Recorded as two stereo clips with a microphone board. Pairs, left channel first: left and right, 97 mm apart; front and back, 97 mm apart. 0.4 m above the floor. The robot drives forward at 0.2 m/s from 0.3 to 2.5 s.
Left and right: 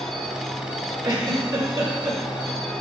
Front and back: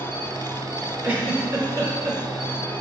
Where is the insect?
105° left, 1.8 m; by 2.8 s 120° left, 2.0 m.